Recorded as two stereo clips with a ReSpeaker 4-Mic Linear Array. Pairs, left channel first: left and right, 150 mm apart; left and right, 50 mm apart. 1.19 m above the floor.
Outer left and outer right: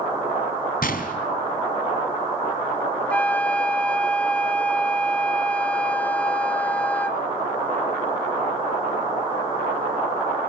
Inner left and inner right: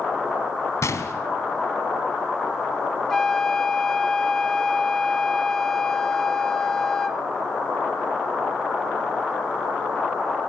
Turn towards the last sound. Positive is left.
turn(degrees=10)  # may be behind; listen again after turning